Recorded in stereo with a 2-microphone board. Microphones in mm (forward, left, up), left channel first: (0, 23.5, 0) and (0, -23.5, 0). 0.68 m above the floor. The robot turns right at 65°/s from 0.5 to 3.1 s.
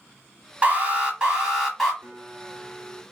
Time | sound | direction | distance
0.6 | an alarm | 25° right (ahead or behind) | 1.4 m
2.0 | a guitar | 110° right | 1.9 m